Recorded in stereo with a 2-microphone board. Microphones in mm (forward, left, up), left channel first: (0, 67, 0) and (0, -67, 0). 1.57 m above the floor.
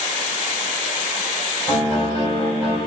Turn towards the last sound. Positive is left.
turn(degrees=50)  # may be behind; listen again after turning